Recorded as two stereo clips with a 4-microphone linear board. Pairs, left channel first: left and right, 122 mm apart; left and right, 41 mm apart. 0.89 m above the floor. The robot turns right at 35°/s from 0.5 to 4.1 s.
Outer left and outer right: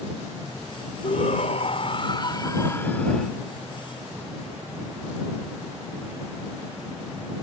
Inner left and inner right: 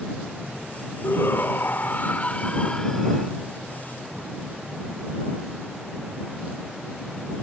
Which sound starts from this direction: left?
A shout, at 1.0 s.